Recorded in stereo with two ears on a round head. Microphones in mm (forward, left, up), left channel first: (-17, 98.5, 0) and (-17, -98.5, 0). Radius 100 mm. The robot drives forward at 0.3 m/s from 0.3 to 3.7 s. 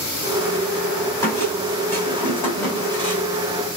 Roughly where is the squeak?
Centre.